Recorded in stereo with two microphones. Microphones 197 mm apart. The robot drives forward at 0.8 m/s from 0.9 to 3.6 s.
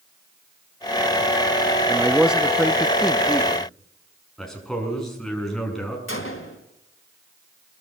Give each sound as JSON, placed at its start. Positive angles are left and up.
{"t": 1.9, "sound": "a man speaking", "side_deg": -5, "distance_m": 0.7}
{"t": 4.4, "sound": "a man speaking", "side_deg": 0, "distance_m": 7.0}
{"t": 6.1, "sound": "a gunshot", "side_deg": 80, "distance_m": 3.5}